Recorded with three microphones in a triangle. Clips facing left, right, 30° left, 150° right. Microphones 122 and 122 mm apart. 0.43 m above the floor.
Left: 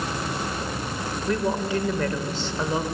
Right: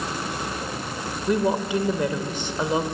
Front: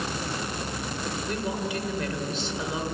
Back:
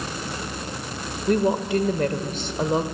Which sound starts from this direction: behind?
A woman speaking, at 1.3 s.